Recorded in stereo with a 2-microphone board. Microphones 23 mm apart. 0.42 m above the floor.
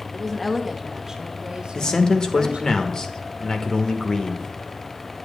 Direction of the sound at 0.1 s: 20° left (ahead or behind).